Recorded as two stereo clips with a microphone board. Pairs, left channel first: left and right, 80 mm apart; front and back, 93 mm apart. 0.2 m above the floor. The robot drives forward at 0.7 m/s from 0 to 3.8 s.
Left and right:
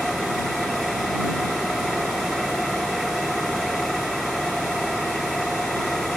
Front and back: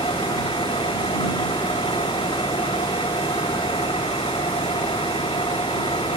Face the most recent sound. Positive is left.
turn(degrees=0)